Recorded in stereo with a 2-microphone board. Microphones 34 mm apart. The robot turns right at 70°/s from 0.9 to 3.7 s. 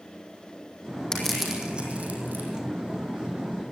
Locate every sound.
1.1 s crushing: 20° left (ahead or behind), 4.5 m; by 2.5 s 75° right (ahead or behind), 4.5 m